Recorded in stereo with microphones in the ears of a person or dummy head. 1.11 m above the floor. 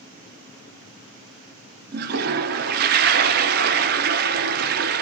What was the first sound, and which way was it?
A toilet flushing, 50° right (ahead or behind).